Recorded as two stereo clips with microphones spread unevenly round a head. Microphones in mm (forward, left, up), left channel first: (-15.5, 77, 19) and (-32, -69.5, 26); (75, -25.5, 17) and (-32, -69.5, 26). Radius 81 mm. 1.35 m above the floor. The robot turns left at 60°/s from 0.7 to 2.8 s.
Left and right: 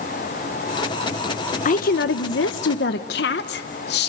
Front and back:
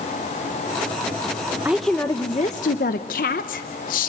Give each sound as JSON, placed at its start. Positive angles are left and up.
{"t": 1.6, "sound": "a woman speaking", "azimuth_deg": 125, "distance_m": 0.8}